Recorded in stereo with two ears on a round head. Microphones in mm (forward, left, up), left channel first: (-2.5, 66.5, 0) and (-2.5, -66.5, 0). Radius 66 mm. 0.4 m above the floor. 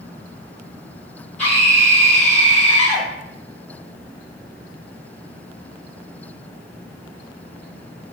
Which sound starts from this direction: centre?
A scream, at 1.4 s.